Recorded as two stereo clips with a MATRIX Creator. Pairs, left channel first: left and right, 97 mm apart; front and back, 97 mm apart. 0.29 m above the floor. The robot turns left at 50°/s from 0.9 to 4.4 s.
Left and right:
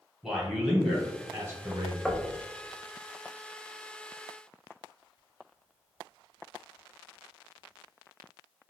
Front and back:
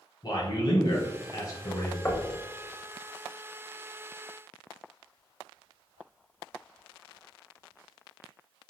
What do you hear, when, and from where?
0.2 s a man speaking: 5° right, 1.5 m; by 1.9 s 55° right, 1.5 m
2.0 s knocking: 5° left, 0.6 m; by 2.3 s 10° right, 0.6 m